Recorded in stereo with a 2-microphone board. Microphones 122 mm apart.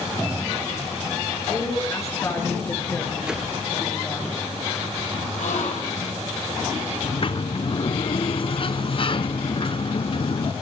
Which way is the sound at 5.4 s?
85° left.